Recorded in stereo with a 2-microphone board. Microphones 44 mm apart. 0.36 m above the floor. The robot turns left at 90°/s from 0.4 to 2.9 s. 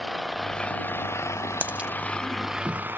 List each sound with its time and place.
0.0 s an engine running: straight behind; by 3.0 s 45° right
1.6 s a dropped coin: 45° right (ahead or behind); by 1.9 s 20° right (ahead or behind)